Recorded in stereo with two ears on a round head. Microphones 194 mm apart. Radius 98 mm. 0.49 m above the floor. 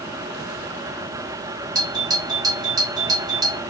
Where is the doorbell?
20° right (ahead or behind), 3.5 m.